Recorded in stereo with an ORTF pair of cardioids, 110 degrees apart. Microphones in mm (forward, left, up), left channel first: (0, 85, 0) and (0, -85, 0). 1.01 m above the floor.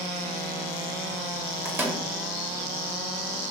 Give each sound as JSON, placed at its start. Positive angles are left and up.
{"t": 1.6, "sound": "a microwave", "azimuth_deg": -15, "distance_m": 1.2}